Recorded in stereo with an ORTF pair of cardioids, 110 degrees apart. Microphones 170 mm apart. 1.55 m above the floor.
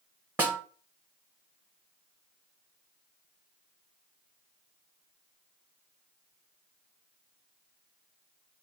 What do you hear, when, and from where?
0.4 s a snare drum: 10° right, 1.0 m